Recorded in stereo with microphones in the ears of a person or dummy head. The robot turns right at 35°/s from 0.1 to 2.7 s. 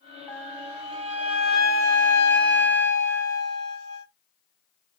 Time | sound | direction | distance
0.3 | a flute | 175° right | 0.7 m